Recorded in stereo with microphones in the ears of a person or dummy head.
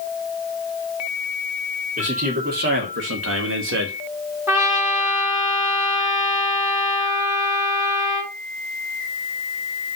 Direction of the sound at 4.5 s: 20° right (ahead or behind).